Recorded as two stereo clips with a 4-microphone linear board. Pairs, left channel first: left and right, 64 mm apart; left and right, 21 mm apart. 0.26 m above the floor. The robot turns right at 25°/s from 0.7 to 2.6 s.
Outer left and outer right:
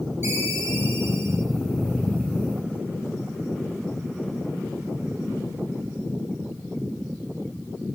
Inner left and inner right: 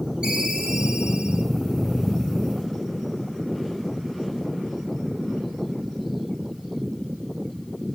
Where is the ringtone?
50° right (ahead or behind), 7.5 m; by 1.5 s 70° right (ahead or behind), 7.5 m.